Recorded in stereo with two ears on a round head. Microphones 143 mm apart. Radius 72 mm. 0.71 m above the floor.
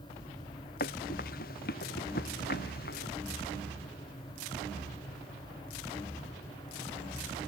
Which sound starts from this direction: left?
Running footsteps, at 0.8 s.